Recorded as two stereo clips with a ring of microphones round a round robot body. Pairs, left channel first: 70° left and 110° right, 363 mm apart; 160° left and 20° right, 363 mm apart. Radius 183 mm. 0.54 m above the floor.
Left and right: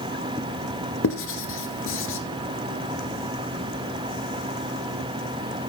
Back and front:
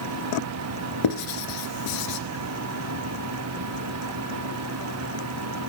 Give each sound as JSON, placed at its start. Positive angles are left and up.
{"t": 1.0, "sound": "writing", "azimuth_deg": 125, "distance_m": 1.7}